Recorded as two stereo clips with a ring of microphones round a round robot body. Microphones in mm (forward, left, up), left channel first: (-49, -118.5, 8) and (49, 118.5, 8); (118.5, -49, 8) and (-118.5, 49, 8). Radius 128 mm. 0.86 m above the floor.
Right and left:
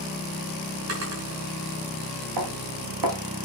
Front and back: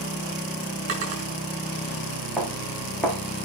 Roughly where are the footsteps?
Ahead left.